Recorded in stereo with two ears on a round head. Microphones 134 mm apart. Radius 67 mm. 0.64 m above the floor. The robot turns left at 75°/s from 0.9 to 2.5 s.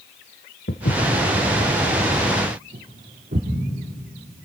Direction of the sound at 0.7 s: 70° left (ahead or behind).